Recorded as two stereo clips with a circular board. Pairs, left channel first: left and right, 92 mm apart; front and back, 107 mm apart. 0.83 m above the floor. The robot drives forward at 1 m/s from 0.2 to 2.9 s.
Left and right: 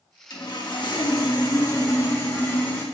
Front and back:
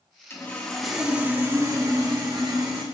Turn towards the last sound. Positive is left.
turn(degrees=155)